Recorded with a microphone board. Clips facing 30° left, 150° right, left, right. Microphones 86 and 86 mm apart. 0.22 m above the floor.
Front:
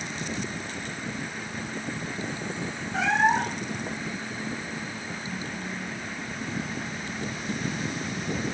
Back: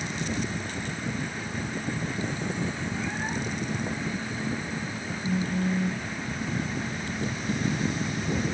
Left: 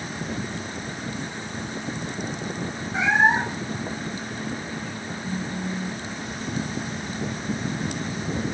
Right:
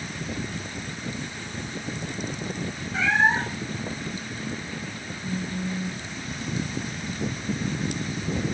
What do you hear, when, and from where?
2.9 s a cat meowing: 20° left
5.2 s a phone buzzing: straight behind